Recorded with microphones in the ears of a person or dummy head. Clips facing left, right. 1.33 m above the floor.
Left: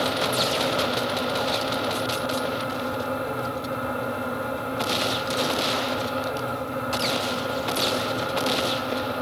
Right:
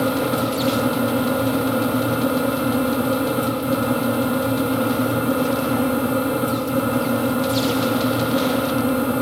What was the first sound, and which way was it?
A fan, 40° right (ahead or behind).